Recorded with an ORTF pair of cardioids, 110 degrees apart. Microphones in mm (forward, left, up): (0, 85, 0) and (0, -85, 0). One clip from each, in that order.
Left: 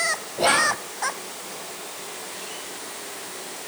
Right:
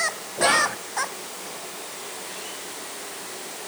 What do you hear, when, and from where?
0.4 s whispering: 5° left, 1.7 m